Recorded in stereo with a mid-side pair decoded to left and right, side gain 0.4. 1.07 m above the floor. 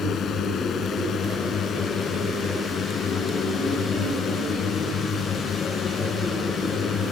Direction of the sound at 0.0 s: 65° left.